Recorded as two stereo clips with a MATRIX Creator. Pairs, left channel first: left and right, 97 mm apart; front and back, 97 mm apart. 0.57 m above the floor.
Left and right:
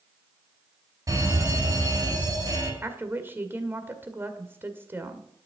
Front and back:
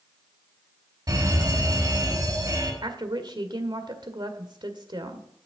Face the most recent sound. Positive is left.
turn(degrees=-155)